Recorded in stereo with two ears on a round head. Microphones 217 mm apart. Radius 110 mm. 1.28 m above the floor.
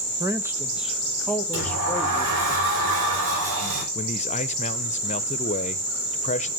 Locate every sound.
0.2 s a man speaking: 15° right (ahead or behind), 1.1 m; by 2.5 s 10° left (ahead or behind), 2 m
1.5 s a sliding door: 65° right (ahead or behind), 3.5 m
4.0 s a man speaking: 30° left (ahead or behind), 0.5 m